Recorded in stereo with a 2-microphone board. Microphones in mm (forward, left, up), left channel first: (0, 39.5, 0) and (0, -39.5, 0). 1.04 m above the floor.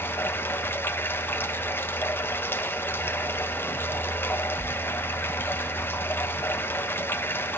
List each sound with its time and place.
0.0 s running water: 25° left (ahead or behind), 0.9 m